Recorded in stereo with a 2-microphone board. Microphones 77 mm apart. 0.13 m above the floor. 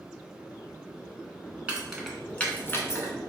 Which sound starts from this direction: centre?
Keys jangling, at 1.7 s.